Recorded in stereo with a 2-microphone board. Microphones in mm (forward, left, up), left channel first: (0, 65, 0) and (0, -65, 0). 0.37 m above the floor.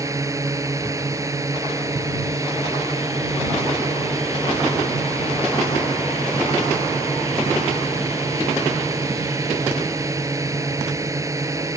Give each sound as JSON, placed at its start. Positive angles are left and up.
{"t": 0.0, "sound": "a drone", "side_deg": -25}